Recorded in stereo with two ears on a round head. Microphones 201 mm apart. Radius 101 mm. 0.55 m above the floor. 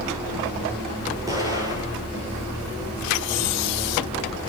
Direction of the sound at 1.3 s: 15° right (ahead or behind).